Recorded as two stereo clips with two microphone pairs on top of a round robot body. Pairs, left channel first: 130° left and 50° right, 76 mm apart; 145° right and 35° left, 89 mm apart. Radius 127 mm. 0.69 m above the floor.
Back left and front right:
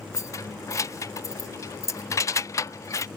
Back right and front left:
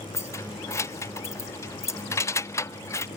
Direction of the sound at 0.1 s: 165° left.